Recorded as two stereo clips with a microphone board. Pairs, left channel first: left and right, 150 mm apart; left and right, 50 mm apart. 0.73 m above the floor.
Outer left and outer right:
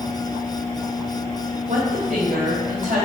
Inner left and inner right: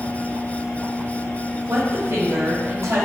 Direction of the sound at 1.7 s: 60° right (ahead or behind).